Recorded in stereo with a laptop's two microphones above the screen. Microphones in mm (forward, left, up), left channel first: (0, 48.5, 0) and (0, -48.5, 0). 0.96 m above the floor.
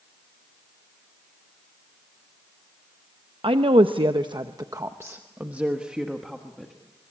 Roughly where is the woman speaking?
Right.